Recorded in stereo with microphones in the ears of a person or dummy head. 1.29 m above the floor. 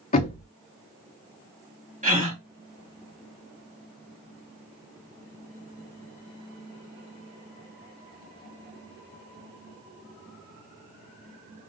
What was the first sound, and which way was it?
Knocking, 30° left (ahead or behind).